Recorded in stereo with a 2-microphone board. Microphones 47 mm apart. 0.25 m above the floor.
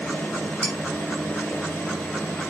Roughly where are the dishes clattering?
Left.